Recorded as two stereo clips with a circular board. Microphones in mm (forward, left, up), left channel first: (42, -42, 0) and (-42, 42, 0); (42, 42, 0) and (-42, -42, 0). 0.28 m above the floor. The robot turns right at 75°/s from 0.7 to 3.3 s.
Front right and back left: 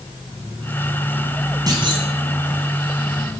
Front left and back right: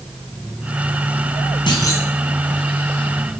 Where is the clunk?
85° left, 1.9 m; by 2.1 s 115° left, 1.9 m.